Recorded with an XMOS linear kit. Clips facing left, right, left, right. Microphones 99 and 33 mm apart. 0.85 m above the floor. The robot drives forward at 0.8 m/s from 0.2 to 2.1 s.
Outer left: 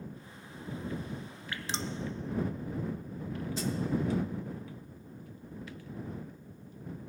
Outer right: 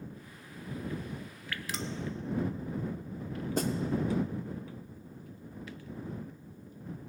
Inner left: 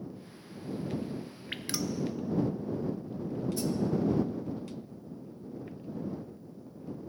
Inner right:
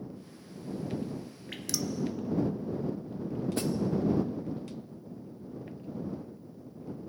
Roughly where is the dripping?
Left.